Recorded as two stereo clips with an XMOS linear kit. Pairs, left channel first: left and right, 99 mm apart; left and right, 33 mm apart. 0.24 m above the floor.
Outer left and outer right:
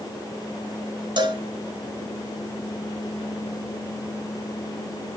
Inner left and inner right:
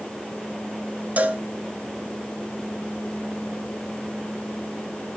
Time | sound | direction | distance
1.2 | a cowbell | 45° right (ahead or behind) | 0.8 m